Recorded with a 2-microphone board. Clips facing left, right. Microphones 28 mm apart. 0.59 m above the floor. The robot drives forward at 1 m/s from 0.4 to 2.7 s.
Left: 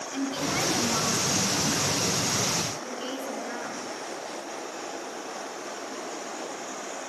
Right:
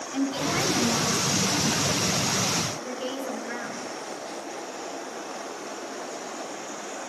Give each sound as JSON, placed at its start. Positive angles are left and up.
{"t": 0.1, "sound": "a woman speaking", "side_deg": 0, "distance_m": 6.0}